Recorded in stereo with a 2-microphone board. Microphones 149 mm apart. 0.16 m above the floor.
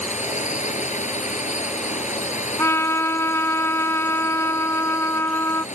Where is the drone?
50° left (ahead or behind).